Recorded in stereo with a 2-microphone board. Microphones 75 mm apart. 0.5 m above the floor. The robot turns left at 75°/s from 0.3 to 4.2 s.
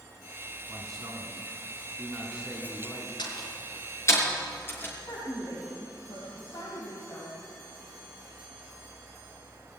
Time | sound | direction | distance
0.7 | a man speaking | 35° right | 4 m
3.2 | a door slam | 75° left (ahead or behind) | 4.5 m
5.1 | a woman speaking | 70° left (ahead or behind) | 3.5 m